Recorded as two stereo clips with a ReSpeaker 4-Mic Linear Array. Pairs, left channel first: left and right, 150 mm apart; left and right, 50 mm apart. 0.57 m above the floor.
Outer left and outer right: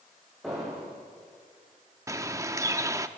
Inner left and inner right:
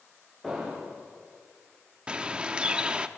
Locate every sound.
0.4 s an explosion: centre (ahead or behind), 8.5 m
2.1 s a bird: 20° right (ahead or behind), 0.9 m